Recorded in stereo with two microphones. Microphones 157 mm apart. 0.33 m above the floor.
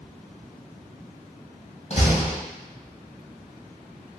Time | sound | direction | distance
1.9 | a door slam | 45° left (ahead or behind) | 1.7 m